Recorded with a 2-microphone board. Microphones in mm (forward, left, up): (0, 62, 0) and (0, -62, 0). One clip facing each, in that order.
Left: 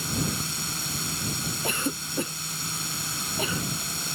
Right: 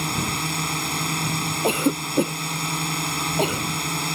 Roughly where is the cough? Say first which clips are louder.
Right 10 dB; right.